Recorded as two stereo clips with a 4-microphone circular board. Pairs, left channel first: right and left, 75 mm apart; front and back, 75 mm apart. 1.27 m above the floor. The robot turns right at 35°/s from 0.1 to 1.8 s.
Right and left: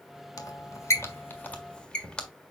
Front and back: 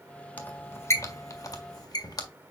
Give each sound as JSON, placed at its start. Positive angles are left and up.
{"t": 0.4, "sound": "a squeak", "azimuth_deg": -65, "distance_m": 1.6}